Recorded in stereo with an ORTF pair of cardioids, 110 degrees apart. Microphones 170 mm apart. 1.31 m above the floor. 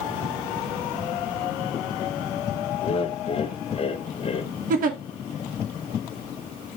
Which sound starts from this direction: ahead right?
A giggle, at 4.7 s.